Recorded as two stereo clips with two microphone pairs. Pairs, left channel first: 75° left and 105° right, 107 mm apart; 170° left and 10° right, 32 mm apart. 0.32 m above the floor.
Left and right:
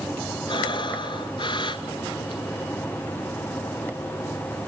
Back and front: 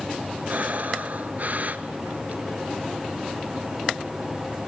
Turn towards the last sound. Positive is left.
turn(degrees=30)